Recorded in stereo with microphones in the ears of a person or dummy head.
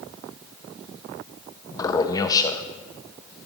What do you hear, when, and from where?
1.7 s a man speaking: 25° left (ahead or behind), 1.3 m